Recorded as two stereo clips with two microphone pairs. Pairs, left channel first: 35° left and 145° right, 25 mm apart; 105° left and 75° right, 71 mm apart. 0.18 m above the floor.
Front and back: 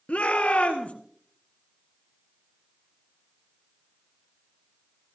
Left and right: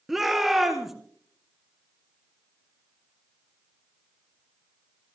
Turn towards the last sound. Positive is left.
turn(degrees=15)